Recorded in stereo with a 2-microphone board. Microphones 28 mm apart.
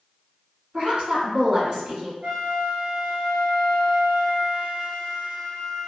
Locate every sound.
0.7 s a woman speaking: 40° right (ahead or behind), 1.3 m
2.2 s a flute: 45° right (ahead or behind), 1.1 m